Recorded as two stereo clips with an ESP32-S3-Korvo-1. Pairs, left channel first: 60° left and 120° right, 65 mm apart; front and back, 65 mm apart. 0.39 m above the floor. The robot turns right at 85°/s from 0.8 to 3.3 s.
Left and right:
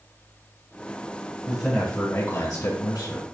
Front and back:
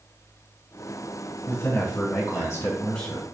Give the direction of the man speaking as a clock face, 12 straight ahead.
2 o'clock.